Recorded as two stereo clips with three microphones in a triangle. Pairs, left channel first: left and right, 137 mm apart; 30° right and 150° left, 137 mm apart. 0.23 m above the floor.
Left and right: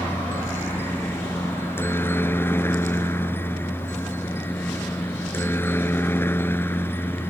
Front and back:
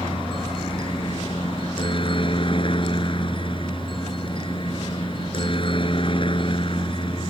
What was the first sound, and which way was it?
A helicopter, 20° left.